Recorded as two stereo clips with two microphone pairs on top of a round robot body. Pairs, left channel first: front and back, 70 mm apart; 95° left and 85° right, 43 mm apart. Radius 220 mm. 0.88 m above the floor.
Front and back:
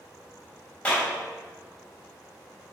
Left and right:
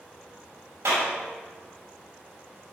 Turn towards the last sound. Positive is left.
turn(degrees=-75)